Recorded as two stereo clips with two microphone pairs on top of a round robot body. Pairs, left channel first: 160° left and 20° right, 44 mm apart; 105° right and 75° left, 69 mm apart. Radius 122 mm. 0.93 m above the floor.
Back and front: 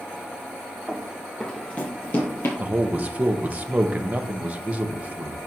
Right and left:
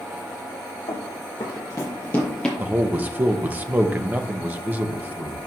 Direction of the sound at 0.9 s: 115° right.